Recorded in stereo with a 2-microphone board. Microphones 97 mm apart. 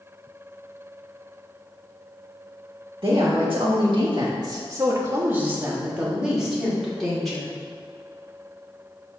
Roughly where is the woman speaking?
Right.